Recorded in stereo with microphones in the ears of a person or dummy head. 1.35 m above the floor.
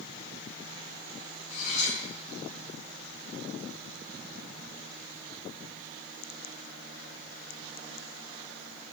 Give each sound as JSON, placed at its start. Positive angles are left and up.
{"t": 1.5, "sound": "cutlery clinking", "side_deg": 45, "distance_m": 4.0}